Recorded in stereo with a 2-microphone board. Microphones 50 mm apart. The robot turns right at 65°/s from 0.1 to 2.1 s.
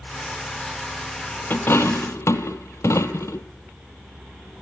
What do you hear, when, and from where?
1.5 s a dropped coin: 40° left (ahead or behind), 1.2 m; by 3.5 s 70° left (ahead or behind), 1.2 m